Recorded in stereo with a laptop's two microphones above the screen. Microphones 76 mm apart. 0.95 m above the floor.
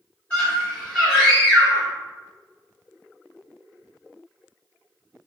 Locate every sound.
0.3 s a scream: 20° left (ahead or behind), 1.4 m